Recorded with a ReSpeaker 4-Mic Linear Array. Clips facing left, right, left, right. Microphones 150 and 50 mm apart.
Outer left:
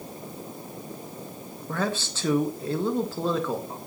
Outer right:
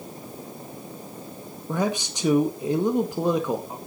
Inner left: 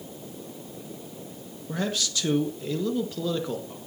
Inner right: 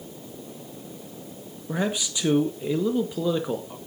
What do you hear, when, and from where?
1.7 s a man speaking: 15° right (ahead or behind), 1.3 m